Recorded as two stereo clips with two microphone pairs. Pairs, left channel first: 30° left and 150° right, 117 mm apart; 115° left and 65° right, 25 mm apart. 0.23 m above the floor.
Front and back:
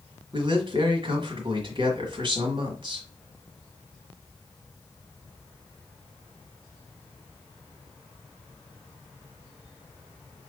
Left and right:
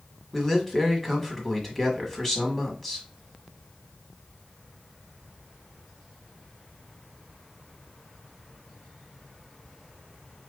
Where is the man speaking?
170° right, 1.3 m.